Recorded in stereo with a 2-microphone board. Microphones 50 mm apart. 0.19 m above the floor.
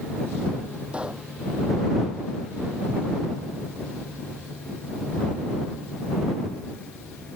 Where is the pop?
25° right (ahead or behind).